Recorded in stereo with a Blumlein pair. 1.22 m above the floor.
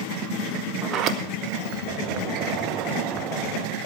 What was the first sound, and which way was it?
A sliding door, 30° right.